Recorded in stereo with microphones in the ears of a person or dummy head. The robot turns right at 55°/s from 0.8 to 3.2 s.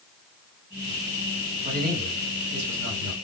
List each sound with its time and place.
1.6 s a man speaking: 140° right, 2.5 m; by 3.1 s 60° right, 2.5 m